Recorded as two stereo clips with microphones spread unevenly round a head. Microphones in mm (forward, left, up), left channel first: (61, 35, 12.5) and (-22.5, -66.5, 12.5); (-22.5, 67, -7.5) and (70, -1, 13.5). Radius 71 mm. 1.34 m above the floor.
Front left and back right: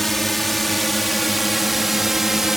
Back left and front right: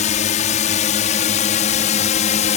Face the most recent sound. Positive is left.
turn(degrees=145)